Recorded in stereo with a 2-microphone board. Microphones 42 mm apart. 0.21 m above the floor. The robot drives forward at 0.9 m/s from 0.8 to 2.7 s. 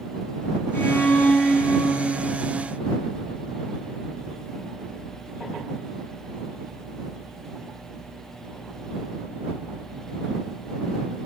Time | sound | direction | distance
0.7 | a violin | 65° left (ahead or behind) | 3 m